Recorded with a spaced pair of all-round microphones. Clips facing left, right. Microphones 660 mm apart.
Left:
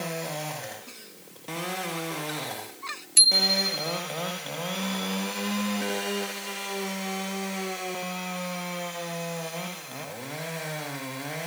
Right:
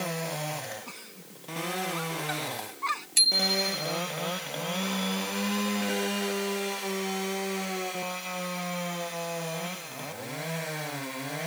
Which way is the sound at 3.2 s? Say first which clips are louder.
Even; centre (ahead or behind).